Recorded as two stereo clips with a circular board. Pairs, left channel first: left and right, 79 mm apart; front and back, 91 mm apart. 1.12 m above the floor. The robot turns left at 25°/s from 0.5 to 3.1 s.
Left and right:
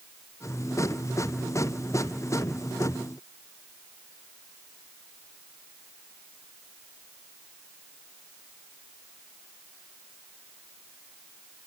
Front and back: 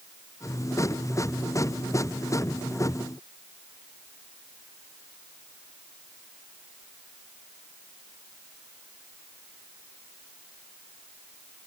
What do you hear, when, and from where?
Only background noise.